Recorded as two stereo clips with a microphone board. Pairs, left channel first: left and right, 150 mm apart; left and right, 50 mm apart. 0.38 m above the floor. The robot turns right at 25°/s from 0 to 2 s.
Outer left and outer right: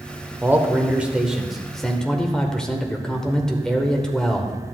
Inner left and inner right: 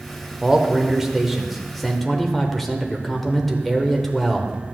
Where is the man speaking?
15° right (ahead or behind), 0.9 m; by 4.5 s 5° left (ahead or behind), 0.9 m.